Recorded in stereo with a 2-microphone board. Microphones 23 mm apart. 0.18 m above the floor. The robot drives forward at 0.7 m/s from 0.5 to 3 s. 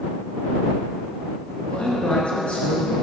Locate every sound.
1.6 s a man speaking: 50° left (ahead or behind), 2.5 m; by 2.9 s 55° left (ahead or behind), 2.5 m